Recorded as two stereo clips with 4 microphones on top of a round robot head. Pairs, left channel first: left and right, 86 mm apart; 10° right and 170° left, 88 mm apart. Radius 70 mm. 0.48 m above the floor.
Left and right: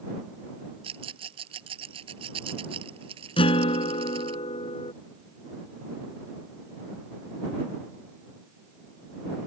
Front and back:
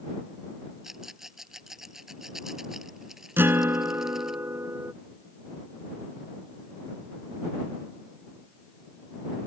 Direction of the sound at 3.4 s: 105° left.